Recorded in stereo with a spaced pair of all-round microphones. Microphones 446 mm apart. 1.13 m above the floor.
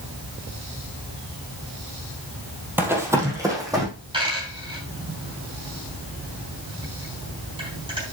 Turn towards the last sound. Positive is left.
turn(degrees=-10)  # may be behind; listen again after turning